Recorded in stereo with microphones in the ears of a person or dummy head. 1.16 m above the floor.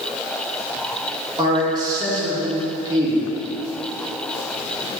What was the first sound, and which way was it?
A man speaking, 25° right (ahead or behind).